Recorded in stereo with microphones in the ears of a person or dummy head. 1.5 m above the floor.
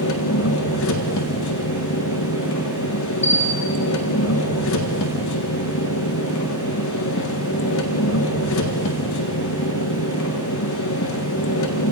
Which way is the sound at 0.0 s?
75° left (ahead or behind).